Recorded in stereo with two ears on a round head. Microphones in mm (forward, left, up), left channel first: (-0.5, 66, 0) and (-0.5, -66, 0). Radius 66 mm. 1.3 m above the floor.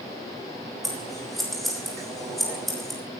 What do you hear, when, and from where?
0.8 s scissors: centre (ahead or behind), 3 m